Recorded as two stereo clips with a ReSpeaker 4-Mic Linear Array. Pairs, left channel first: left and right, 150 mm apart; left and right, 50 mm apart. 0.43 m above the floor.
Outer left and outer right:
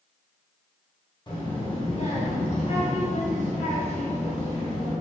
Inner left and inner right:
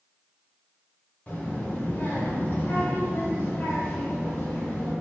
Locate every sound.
1.3 s a child speaking: 35° left (ahead or behind), 1.4 m; by 4.9 s 45° left (ahead or behind), 1.7 m